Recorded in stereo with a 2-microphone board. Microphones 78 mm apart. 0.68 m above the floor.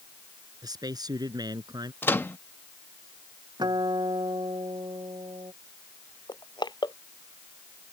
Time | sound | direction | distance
0.6 | a man speaking | 60° right (ahead or behind) | ?
2.0 | a microwave | 30° left (ahead or behind) | ?
3.6 | a guitar | 70° right (ahead or behind) | ?
6.3 | crushing | 70° left (ahead or behind) | ?